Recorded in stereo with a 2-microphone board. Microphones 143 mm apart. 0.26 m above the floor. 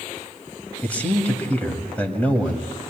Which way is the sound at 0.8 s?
10° left (ahead or behind).